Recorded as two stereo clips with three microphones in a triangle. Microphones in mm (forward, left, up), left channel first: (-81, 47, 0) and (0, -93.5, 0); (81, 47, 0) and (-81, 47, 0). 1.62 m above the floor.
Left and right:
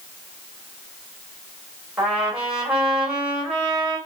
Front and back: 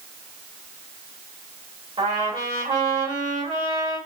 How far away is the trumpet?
About 1.8 m.